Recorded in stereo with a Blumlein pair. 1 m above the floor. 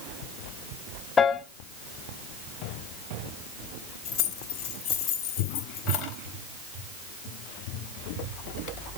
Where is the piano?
20° left, 1.6 m.